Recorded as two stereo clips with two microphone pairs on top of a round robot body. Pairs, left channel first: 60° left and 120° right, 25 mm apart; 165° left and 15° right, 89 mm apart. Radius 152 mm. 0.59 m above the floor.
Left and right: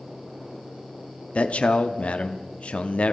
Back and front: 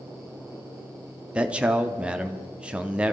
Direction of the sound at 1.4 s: 55° left.